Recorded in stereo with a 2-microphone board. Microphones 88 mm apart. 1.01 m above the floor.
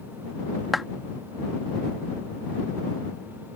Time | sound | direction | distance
0.7 | a clap | centre (ahead or behind) | ?